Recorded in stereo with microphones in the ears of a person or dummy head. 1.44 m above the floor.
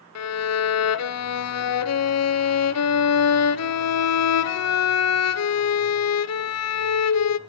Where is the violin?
70° left (ahead or behind), 0.6 m.